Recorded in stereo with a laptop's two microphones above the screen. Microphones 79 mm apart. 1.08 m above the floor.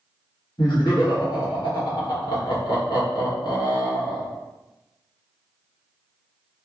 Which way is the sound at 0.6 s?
80° left.